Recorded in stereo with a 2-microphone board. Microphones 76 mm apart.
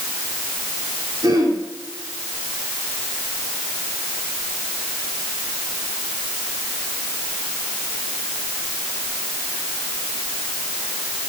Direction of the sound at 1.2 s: 60° right (ahead or behind).